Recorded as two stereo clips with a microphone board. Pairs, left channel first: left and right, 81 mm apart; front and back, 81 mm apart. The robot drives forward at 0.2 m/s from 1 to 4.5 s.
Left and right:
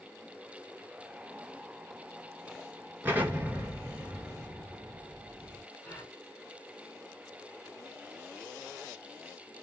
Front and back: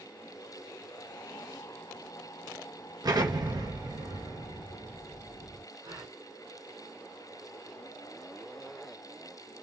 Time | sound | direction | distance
3.0 | an explosion | 155° right | 1.8 m
5.8 | a gasp | 165° left | 2 m